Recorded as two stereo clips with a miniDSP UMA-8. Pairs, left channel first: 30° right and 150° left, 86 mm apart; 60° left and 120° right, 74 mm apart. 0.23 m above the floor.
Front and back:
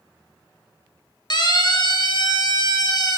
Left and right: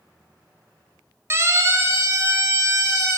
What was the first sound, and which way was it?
A siren, 65° right.